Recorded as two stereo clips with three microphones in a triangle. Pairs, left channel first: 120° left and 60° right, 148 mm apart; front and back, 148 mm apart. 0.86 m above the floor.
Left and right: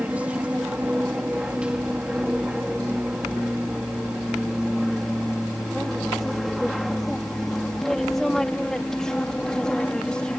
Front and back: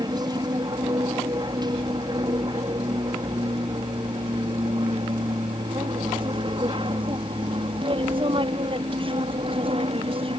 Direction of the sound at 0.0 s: 135° right.